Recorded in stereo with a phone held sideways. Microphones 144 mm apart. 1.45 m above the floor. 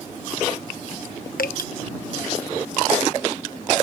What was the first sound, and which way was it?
Dripping, 85° left.